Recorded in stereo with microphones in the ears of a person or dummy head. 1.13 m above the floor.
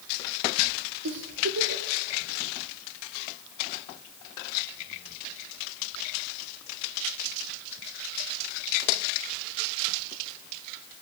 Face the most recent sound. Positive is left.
turn(degrees=-75)  # may be behind; listen again after turning